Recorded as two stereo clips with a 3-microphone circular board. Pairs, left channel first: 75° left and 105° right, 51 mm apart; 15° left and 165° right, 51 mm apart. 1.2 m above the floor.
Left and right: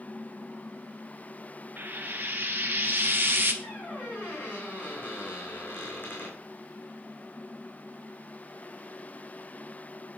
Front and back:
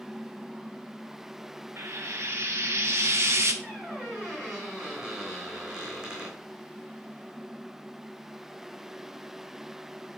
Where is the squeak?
120° left, 3.5 m.